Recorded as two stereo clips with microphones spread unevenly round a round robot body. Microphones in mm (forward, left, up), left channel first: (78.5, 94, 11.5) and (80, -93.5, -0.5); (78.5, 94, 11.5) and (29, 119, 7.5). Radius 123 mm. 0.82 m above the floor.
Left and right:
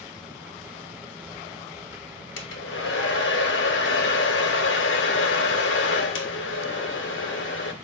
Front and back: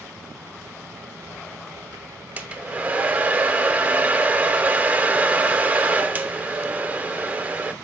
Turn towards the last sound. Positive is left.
turn(degrees=85)